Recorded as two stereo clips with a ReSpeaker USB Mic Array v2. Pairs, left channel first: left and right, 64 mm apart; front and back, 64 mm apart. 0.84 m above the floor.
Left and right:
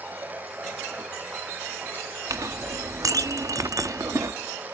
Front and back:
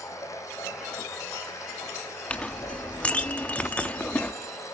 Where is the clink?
70° right, 0.6 m.